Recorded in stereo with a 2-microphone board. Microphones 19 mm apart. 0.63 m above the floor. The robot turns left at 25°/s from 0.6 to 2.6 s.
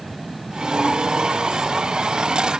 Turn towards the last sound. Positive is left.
No sound to turn to.